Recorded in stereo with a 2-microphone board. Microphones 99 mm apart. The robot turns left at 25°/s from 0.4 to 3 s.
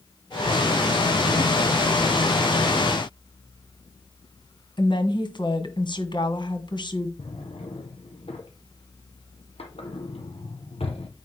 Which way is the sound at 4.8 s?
55° left (ahead or behind).